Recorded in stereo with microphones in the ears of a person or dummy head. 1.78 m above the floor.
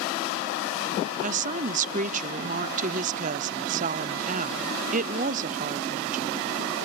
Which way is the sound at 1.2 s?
40° right (ahead or behind).